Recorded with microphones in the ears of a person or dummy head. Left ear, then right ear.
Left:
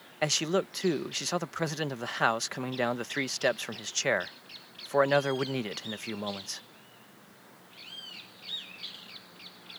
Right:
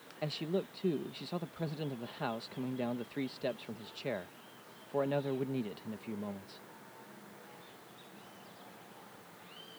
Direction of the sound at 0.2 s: 55° left (ahead or behind).